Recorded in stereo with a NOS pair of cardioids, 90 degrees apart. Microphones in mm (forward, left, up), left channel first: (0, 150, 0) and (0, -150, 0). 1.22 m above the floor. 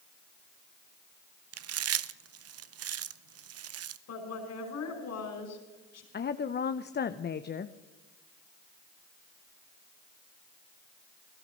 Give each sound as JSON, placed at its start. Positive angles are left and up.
{"t": 1.5, "sound": "chewing", "azimuth_deg": -55, "distance_m": 0.8}
{"t": 4.1, "sound": "a woman speaking", "azimuth_deg": 60, "distance_m": 5.0}
{"t": 6.1, "sound": "a woman speaking", "azimuth_deg": 35, "distance_m": 0.8}